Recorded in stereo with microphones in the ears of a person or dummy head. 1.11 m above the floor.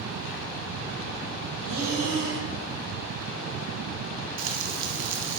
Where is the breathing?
65° right (ahead or behind), 1.4 m.